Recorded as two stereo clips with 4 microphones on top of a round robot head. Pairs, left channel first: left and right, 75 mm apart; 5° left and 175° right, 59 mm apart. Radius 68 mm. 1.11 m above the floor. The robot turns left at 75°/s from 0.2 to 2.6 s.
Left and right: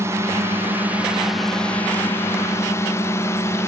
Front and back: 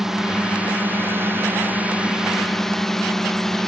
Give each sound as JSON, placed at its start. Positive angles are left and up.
{"t": 0.0, "sound": "a drone", "azimuth_deg": -90}